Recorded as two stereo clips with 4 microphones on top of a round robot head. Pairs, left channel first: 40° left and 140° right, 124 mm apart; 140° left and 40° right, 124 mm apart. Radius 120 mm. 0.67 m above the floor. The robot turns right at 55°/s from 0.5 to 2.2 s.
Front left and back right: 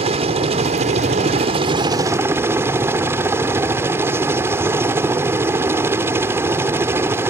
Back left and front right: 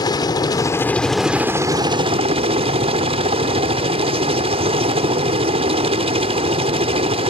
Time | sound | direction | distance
0.0 | a helicopter | 165° right | ?